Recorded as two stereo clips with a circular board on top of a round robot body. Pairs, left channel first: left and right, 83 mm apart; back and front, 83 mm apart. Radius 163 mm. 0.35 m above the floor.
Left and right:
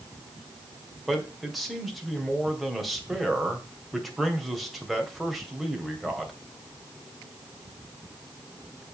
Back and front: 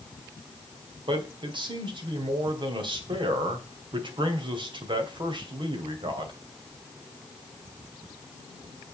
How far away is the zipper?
No zipper in this recording.